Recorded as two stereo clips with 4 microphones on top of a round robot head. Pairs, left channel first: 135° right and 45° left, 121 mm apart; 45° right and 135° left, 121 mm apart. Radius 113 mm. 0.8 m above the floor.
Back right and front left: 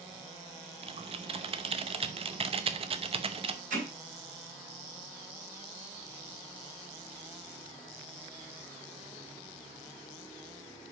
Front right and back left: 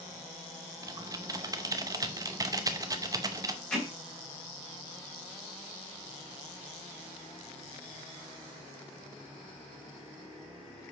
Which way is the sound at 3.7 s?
35° left.